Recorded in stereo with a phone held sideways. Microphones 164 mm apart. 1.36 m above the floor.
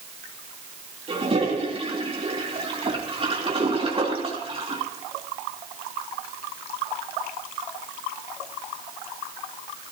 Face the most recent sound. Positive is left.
turn(degrees=-35)  # may be behind; listen again after turning